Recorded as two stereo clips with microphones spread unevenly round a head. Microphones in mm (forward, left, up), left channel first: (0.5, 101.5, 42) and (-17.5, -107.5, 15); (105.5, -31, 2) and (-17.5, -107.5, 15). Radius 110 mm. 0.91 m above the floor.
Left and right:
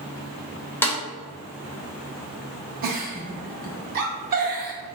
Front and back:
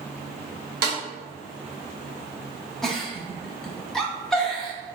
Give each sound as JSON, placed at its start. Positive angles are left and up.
{"t": 0.8, "sound": "a snare drum", "azimuth_deg": 165, "distance_m": 0.6}
{"t": 2.8, "sound": "a giggle", "azimuth_deg": -60, "distance_m": 0.6}